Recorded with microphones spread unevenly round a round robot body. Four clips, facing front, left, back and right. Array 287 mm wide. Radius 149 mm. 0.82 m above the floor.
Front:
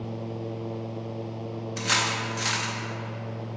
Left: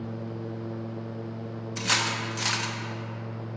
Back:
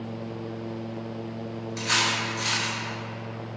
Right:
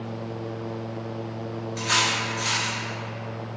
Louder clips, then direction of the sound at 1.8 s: Right 3 dB, back 1 dB; 60° left.